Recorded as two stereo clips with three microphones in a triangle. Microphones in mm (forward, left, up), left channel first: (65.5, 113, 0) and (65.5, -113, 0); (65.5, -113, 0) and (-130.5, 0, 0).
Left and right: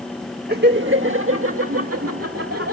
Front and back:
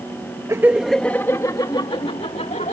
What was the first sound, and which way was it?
Laughter, 135° right.